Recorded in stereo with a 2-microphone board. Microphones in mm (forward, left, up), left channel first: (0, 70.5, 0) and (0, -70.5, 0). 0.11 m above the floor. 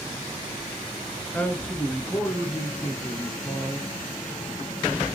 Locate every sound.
1.3 s a man speaking: 10° left (ahead or behind), 1.4 m